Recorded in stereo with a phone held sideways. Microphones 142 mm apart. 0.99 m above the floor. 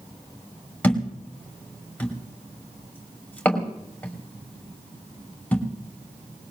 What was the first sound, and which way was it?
A thud, 10° left (ahead or behind).